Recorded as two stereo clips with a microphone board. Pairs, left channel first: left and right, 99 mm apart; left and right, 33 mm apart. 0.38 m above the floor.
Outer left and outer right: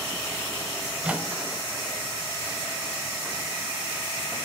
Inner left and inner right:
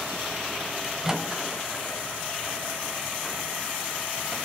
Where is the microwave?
15° right (ahead or behind), 1.3 m.